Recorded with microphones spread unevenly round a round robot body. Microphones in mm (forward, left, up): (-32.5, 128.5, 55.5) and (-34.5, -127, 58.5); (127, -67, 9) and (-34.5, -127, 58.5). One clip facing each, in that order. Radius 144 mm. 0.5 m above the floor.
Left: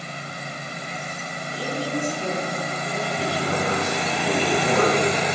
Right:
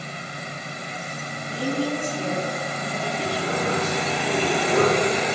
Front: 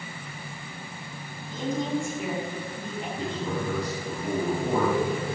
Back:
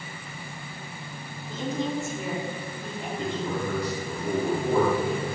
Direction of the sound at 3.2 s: 75° left.